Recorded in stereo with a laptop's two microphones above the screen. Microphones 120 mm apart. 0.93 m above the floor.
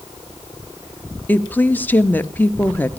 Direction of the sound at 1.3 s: 15° left (ahead or behind).